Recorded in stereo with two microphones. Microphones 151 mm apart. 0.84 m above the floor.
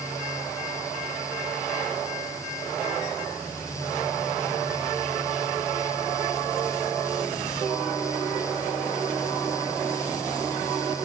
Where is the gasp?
I don't hear a gasp.